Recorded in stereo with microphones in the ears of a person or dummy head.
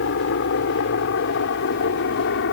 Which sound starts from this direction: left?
A helicopter, at 0.0 s.